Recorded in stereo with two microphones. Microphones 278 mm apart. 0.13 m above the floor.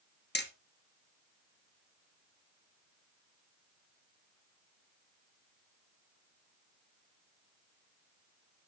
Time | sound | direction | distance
0.3 | hammering | 40° left (ahead or behind) | 1.5 m